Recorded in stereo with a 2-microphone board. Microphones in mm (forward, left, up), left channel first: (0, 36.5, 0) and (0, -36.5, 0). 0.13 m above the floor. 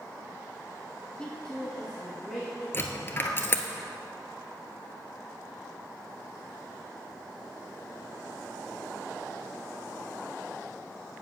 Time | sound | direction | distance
1.2 | a woman speaking | 15° left (ahead or behind) | 1.1 m
2.7 | a dropped coin | 30° left (ahead or behind) | 0.8 m